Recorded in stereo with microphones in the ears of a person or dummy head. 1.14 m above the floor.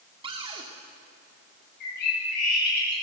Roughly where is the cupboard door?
Right.